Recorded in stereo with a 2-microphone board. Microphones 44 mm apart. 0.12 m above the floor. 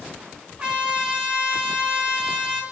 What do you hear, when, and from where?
0.6 s a trumpet: 25° right (ahead or behind), 3.5 m